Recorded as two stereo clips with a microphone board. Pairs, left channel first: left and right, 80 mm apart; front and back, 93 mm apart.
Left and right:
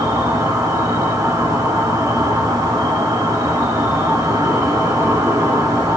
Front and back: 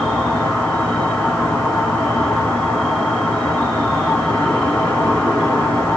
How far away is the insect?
About 1.6 m.